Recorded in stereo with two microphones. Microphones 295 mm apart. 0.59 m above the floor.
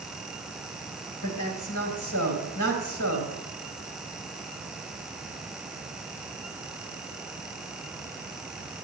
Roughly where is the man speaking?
Left.